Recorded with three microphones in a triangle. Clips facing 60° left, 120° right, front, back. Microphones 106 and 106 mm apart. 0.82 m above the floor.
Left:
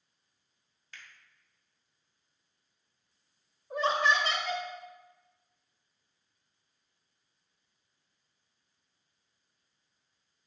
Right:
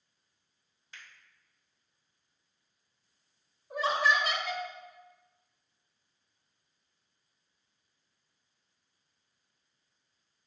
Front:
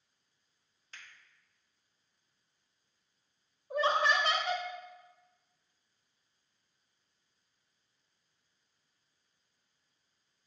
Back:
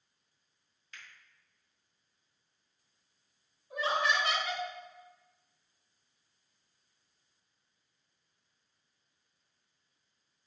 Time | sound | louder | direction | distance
0.9 | a finger snap | even, back 1 dB | 55° right | 1.0 m
3.7 | laughter | left 1 dB, front 2 dB | 40° right | 0.9 m